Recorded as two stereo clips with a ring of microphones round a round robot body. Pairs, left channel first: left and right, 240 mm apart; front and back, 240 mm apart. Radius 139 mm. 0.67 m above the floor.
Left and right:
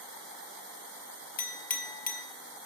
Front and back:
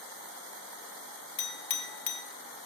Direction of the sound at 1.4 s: 35° left.